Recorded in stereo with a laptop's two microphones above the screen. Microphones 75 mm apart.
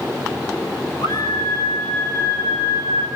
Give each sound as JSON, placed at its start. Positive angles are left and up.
{"t": 1.0, "sound": "a scream", "side_deg": 70, "distance_m": 7.5}